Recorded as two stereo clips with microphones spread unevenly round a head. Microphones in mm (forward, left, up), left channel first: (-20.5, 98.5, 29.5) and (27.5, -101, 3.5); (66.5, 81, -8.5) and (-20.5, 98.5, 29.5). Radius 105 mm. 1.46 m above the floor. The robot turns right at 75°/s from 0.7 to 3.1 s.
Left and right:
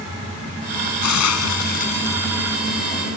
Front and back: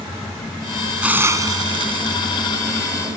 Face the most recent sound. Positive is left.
turn(degrees=-110)